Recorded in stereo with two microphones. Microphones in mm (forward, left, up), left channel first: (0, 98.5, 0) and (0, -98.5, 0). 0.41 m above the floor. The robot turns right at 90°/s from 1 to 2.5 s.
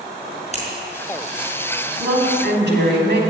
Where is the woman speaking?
145° right, 3.5 m; by 3.2 s 95° right, 3.5 m.